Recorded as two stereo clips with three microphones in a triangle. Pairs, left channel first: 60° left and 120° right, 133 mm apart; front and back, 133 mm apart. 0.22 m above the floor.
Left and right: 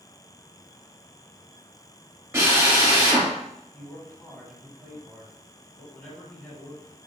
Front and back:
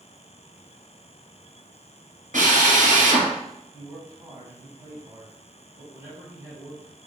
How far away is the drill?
About 1.9 m.